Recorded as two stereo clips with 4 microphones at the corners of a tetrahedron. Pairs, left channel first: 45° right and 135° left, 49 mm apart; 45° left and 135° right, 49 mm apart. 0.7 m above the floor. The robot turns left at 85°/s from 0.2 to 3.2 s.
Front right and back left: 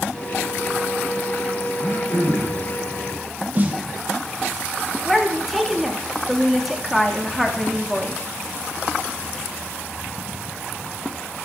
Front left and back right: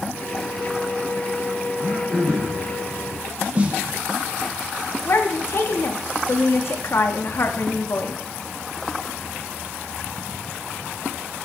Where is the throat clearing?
10° right, 4 m; by 2.6 s 85° right, 4 m.